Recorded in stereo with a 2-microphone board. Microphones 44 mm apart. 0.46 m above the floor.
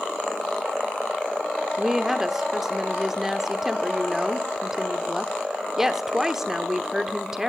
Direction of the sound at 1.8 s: 10° right (ahead or behind).